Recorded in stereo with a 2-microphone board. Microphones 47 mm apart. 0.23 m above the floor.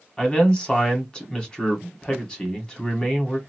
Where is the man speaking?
20° left (ahead or behind), 1.3 m.